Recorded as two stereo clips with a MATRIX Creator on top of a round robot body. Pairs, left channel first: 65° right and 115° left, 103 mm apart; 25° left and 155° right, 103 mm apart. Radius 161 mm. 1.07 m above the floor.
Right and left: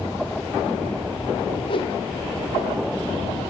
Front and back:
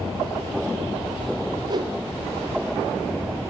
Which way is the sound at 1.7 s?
105° right.